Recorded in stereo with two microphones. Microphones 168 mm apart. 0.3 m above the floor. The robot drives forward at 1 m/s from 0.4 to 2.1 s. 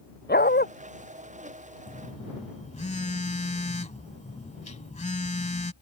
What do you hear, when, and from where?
0.3 s a dog barking: 75° left (ahead or behind)
1.9 s a phone buzzing: 55° left (ahead or behind); by 5.7 s 45° left (ahead or behind)